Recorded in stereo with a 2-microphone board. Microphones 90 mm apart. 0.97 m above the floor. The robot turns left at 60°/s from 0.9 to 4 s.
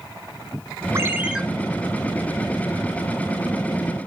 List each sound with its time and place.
0.9 s a ringtone: 30° right (ahead or behind), 0.6 m; by 1.4 s 5° right (ahead or behind), 0.6 m